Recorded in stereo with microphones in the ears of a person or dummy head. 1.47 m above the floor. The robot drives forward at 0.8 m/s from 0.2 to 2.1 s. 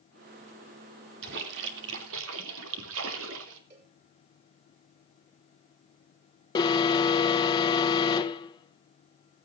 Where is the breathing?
No breathing in this recording.